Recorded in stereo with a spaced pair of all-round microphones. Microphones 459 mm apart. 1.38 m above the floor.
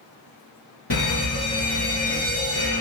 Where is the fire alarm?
60° left (ahead or behind), 1.9 m.